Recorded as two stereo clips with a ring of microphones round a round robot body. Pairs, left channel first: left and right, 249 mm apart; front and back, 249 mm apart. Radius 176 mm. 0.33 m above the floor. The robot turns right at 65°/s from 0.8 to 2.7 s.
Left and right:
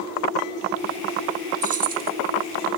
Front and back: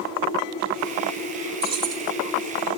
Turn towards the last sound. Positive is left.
turn(degrees=-60)